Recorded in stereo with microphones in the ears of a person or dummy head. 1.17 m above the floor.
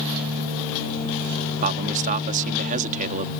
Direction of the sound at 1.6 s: 45° right (ahead or behind).